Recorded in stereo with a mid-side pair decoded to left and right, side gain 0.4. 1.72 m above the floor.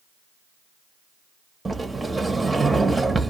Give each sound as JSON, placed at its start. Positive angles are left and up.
{"t": 1.6, "sound": "a sliding door", "azimuth_deg": -20, "distance_m": 0.7}